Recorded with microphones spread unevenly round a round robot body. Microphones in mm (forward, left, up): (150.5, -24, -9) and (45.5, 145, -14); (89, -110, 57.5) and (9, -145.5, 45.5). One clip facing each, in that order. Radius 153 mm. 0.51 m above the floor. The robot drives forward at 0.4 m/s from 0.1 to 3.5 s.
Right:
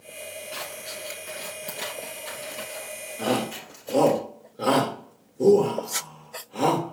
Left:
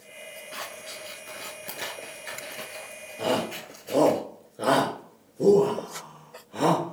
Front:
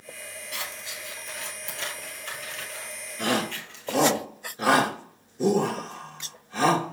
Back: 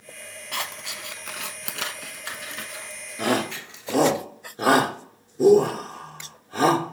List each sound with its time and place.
0.5 s scissors: 130° right, 0.8 m; by 4.2 s 160° right, 1.8 m
3.2 s a shout: 160° right, 1.4 m